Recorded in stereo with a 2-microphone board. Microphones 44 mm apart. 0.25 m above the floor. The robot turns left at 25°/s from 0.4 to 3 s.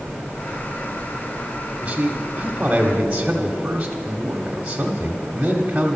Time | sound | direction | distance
1.8 | a man speaking | 25° right (ahead or behind) | 0.9 m